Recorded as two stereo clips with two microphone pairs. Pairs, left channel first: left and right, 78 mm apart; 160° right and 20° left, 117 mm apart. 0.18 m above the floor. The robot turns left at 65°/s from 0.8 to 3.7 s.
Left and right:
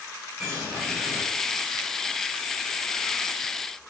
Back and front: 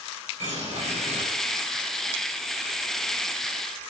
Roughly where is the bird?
Ahead.